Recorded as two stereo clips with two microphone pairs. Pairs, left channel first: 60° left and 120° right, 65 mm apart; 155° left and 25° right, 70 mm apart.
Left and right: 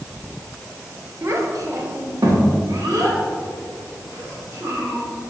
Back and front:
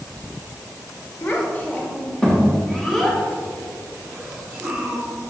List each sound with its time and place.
1.2 s a child speaking: 155° right, 1.0 m; by 5.0 s 105° right, 2.5 m